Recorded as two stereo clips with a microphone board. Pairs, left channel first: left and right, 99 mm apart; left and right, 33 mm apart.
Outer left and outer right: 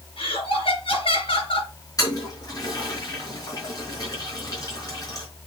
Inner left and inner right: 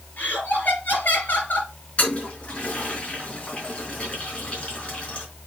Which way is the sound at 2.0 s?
40° left (ahead or behind).